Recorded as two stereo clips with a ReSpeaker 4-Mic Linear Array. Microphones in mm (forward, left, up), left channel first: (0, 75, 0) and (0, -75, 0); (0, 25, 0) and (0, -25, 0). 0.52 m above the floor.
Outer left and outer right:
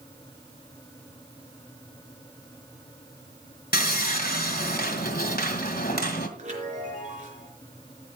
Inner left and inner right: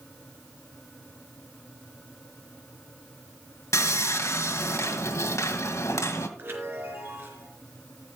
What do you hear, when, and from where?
3.7 s sawing: 80° left, 2.5 m
6.4 s a chime: 50° right (ahead or behind), 4.5 m